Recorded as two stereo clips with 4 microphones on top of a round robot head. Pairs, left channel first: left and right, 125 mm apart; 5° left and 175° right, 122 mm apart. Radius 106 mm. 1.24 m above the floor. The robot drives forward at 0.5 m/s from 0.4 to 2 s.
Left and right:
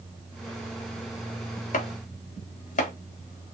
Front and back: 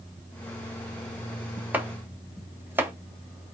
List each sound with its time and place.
1.7 s chopping: 105° left, 1.5 m; by 2.9 s 110° left, 1.5 m